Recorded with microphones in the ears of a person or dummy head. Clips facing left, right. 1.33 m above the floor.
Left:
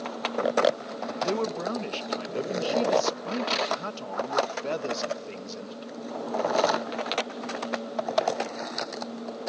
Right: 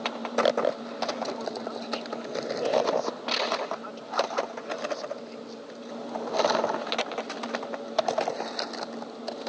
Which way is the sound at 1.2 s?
70° left (ahead or behind).